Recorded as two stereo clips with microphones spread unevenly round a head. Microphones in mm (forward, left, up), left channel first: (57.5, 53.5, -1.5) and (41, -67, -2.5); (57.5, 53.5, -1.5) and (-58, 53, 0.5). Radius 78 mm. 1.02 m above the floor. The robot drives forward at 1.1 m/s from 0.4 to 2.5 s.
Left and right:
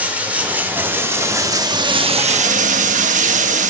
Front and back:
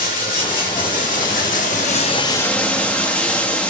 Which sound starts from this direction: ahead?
Running water, at 0.0 s.